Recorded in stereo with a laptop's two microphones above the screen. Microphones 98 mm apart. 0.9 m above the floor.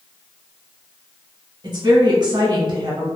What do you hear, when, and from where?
1.6 s a woman speaking: 45° right (ahead or behind), 0.8 m